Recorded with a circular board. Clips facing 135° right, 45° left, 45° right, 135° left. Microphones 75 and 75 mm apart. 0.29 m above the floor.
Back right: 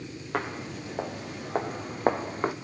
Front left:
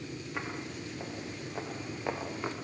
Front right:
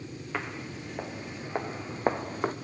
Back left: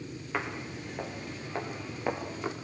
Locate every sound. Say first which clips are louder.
0.3 s footsteps: back right 8 dB, back left 1 dB; 140° right, 4 m; by 2.5 s 85° right, 3 m